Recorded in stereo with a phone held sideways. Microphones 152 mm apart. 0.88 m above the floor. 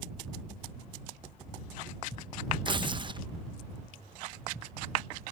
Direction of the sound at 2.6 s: 30° right (ahead or behind).